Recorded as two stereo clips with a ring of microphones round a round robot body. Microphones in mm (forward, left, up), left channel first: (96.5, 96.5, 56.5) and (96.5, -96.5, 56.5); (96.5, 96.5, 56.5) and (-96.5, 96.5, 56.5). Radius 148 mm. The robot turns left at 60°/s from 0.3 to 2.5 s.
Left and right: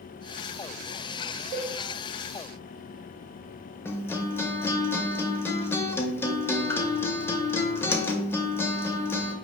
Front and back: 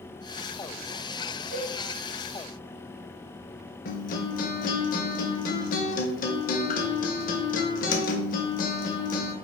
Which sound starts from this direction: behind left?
A cowbell, at 1.5 s.